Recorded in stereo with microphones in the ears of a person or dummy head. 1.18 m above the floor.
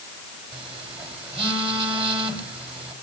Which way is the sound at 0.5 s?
30° right (ahead or behind).